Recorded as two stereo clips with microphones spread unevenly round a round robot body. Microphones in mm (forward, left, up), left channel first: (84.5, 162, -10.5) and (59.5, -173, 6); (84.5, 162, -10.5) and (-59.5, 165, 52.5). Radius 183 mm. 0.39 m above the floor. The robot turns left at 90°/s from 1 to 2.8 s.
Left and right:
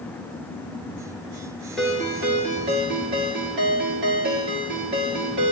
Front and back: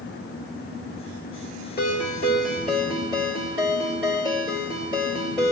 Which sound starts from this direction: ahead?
A ringtone, at 1.8 s.